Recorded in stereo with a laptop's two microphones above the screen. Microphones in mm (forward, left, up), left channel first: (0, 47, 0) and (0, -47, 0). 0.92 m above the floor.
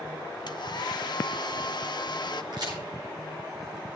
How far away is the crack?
About 9.5 m.